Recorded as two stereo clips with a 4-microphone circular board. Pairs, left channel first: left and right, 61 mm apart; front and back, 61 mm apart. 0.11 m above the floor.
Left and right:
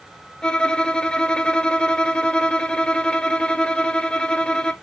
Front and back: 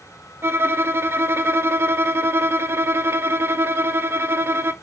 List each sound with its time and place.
0.4 s a violin: 160° left, 0.5 m